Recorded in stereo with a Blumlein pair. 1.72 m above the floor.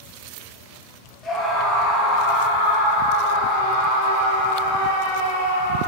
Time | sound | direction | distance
1.2 | a scream | 5° left | 1.6 m